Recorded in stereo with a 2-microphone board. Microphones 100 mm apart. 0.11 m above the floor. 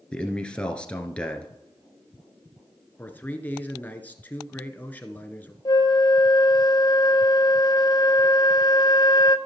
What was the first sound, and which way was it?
A man speaking, 10° left (ahead or behind).